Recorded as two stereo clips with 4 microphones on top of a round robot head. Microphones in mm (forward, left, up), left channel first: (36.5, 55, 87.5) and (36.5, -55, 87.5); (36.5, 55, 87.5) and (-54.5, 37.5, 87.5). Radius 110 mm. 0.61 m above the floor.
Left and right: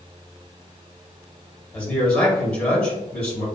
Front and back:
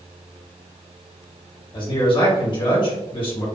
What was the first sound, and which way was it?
A man speaking, 15° left.